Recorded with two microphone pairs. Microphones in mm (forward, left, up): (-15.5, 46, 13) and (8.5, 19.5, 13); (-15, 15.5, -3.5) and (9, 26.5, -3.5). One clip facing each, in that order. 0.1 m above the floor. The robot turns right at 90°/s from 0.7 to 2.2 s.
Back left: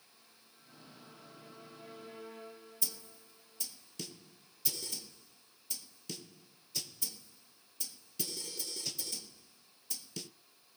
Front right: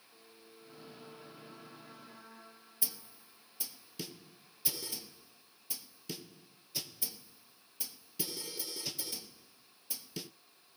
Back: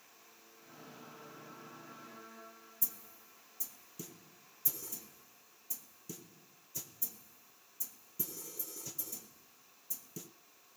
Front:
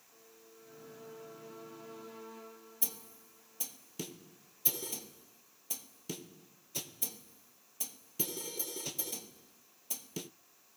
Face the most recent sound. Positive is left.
turn(degrees=30)